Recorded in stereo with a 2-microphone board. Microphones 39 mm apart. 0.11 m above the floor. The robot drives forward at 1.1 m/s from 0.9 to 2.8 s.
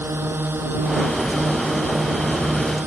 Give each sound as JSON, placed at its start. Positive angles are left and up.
{"t": 0.0, "sound": "a drone", "side_deg": -70}